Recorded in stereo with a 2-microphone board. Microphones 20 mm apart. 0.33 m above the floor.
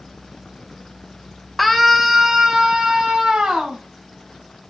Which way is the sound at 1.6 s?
Centre (ahead or behind).